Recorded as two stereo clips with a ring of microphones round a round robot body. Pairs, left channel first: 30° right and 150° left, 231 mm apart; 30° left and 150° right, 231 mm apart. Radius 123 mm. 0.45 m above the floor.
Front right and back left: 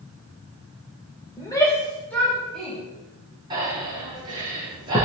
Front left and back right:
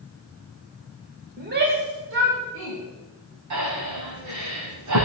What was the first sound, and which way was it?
A shout, 105° right.